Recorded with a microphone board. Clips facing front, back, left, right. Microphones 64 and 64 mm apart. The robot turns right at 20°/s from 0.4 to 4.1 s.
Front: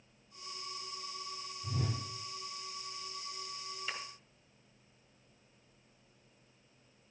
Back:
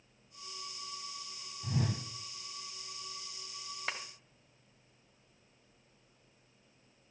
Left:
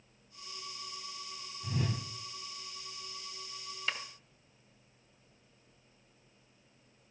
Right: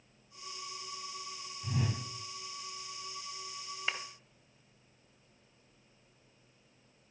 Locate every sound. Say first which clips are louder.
1.6 s a whoosh: back 3 dB, even; 175° right, 1.5 m; by 2.0 s 165° right, 1.5 m
3.9 s a clap: back 3 dB, even; 155° right, 1.8 m